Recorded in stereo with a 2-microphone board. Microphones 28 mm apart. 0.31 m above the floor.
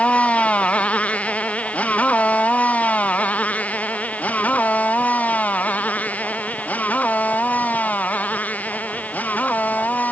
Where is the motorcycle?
45° left (ahead or behind); by 10.1 s 70° left (ahead or behind).